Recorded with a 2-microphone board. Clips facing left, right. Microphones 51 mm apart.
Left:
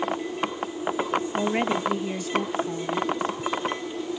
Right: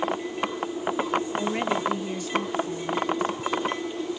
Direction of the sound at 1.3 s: 25° left (ahead or behind).